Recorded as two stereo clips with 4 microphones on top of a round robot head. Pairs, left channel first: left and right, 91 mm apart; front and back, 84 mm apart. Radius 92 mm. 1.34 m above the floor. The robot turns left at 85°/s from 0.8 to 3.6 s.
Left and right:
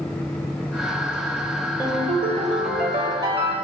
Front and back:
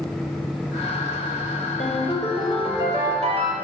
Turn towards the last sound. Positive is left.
turn(degrees=175)